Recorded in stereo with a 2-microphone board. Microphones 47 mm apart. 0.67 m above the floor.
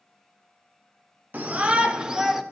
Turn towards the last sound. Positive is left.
turn(degrees=-5)  # may be behind; listen again after turning